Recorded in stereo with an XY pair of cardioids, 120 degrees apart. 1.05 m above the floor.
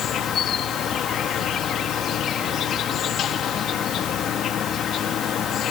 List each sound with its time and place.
0.0 s an insect: 55° left